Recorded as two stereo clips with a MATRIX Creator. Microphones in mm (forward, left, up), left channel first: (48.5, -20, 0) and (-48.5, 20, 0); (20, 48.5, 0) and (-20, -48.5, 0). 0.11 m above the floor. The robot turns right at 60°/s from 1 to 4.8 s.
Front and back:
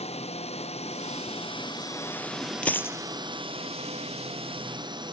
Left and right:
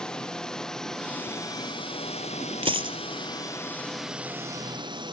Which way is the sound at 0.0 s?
15° right.